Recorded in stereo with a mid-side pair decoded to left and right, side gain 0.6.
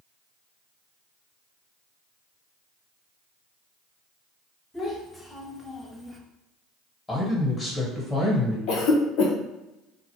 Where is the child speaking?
10° left, 1.5 m; by 6.2 s 15° right, 0.6 m.